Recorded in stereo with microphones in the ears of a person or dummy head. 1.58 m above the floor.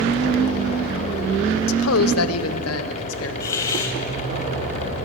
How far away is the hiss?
About 2.5 m.